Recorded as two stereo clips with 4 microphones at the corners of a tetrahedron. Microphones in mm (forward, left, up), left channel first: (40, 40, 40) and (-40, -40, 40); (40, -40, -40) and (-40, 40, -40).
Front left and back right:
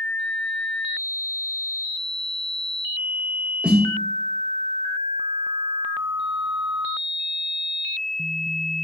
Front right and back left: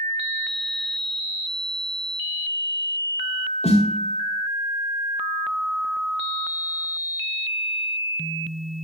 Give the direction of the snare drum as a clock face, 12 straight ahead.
2 o'clock.